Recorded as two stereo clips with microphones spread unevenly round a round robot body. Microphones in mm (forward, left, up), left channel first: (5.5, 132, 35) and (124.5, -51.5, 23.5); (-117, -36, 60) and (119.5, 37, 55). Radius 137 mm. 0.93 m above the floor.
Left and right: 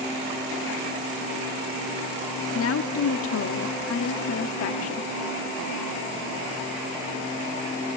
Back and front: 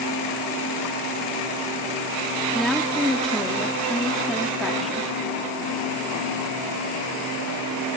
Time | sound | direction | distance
2.5 | a woman speaking | 110° left | 1.6 m